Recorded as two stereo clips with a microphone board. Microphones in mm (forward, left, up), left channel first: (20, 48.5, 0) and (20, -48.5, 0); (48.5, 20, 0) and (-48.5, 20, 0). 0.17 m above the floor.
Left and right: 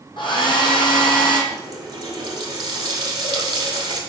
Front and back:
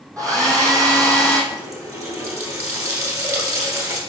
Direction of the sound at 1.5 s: 130° right.